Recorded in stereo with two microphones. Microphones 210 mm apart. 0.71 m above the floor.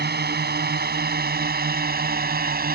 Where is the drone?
55° right (ahead or behind); by 2.8 s 50° right (ahead or behind).